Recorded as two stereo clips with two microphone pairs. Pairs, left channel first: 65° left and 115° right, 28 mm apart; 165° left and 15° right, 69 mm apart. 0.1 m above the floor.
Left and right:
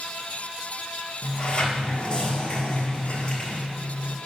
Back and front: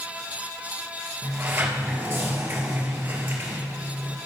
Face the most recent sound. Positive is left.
turn(degrees=30)